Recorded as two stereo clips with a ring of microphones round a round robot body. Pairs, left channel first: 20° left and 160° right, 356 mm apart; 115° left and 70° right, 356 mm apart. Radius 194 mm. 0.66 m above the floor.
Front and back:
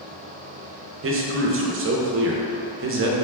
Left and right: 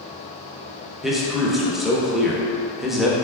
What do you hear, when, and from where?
1.0 s a man speaking: 155° right, 0.6 m